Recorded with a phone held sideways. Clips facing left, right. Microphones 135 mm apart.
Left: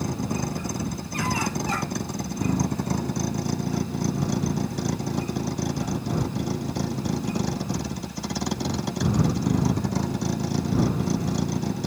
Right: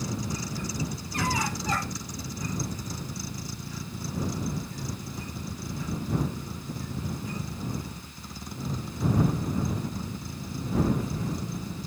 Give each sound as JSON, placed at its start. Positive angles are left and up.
{"t": 0.0, "sound": "a vehicle", "side_deg": 60}